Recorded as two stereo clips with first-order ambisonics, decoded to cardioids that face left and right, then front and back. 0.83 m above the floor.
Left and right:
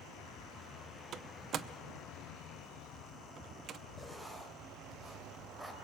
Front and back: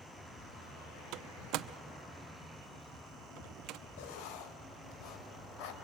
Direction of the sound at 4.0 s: 5° right.